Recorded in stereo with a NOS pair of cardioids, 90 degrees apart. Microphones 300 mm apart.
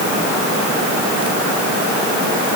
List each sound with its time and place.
Only background noise.